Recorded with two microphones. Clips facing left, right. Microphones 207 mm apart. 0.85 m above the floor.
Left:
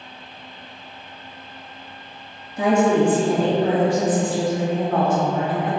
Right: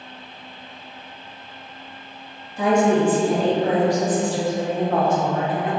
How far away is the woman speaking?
About 1.2 m.